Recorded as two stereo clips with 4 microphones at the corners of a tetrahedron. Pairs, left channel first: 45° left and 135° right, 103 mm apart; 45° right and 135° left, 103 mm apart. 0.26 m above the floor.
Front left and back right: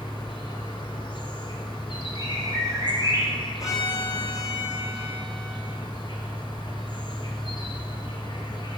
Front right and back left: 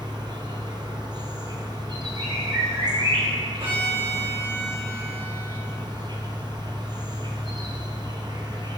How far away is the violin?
About 3 m.